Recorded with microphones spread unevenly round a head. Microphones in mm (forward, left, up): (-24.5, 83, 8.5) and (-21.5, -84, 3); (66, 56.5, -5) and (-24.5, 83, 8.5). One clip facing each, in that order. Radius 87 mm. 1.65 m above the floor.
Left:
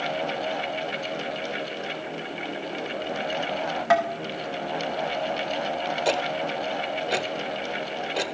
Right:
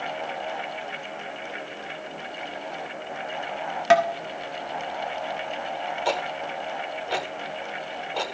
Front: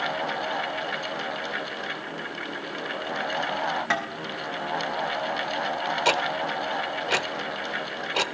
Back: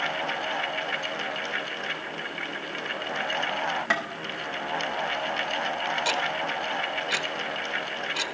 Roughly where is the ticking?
Ahead.